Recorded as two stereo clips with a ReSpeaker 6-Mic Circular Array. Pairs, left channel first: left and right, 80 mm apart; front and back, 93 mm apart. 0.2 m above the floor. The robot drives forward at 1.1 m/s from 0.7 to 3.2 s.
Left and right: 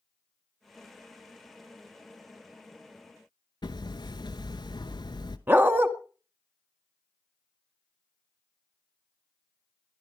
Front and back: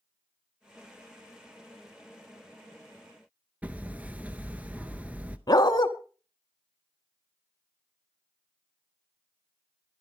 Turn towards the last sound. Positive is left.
turn(degrees=-30)